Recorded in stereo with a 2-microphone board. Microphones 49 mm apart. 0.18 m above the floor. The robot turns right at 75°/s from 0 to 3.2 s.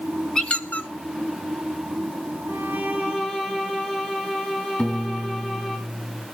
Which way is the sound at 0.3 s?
15° left (ahead or behind).